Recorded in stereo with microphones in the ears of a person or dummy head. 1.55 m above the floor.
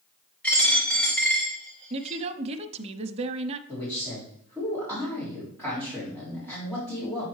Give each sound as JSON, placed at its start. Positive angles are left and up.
{"t": 0.4, "sound": "a dropped coin", "side_deg": 10, "distance_m": 2.0}
{"t": 1.9, "sound": "a woman speaking", "side_deg": -35, "distance_m": 0.6}
{"t": 3.7, "sound": "a man speaking", "side_deg": 10, "distance_m": 3.5}